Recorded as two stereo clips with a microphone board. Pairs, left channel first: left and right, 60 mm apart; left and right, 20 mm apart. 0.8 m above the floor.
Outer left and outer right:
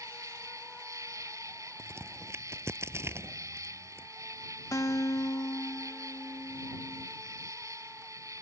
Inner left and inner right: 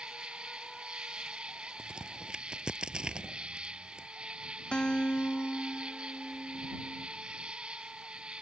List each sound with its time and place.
0.0 s an insect: 65° right (ahead or behind)
1.8 s a crack: 45° right (ahead or behind)
4.7 s a guitar: 65° left (ahead or behind)